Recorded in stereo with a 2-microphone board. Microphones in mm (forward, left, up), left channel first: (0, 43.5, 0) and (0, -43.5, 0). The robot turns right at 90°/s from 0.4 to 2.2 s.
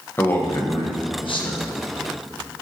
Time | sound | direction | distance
0.2 | a man speaking | 25° left | 1.4 m